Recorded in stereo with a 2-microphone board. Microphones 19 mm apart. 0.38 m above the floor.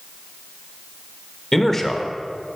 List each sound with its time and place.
1.5 s a man speaking: 20° left (ahead or behind), 0.8 m